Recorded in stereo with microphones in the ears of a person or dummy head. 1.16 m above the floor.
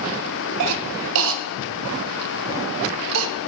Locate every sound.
0.6 s a cough: 75° right (ahead or behind), 0.5 m